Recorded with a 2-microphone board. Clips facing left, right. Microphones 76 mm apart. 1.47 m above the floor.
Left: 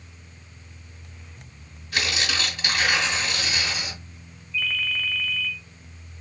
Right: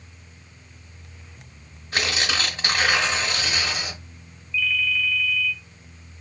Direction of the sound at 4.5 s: 50° left (ahead or behind).